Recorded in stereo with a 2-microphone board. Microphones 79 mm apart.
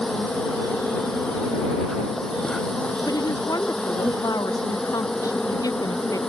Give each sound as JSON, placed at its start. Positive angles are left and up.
{"t": 0.0, "sound": "an insect", "side_deg": 10}
{"t": 3.1, "sound": "a woman speaking", "side_deg": 50}